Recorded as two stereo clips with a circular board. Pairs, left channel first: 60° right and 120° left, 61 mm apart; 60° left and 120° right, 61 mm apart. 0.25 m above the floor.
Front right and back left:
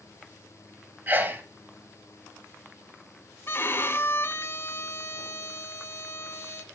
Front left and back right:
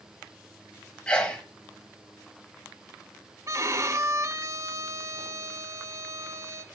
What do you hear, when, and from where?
1.1 s a sneeze: 115° left, 1.3 m
3.5 s a violin: 100° right, 0.9 m